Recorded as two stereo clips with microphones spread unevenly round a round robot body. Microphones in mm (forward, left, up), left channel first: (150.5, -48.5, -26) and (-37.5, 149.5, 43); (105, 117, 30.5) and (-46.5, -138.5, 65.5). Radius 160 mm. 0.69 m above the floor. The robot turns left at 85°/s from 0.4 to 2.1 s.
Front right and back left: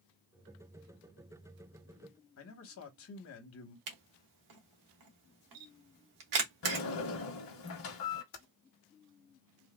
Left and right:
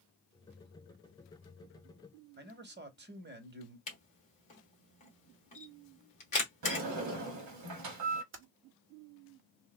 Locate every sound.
2.4 s a man speaking: 65° right, 1.0 m
3.9 s a camera shutter: 130° left, 1.2 m
6.6 s a sliding door: 100° right, 0.8 m
8.3 s typing on a keyboard: 75° right, 0.8 m